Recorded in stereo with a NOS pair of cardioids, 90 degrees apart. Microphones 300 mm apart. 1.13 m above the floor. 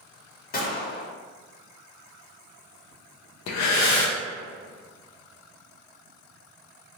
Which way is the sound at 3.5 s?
70° left.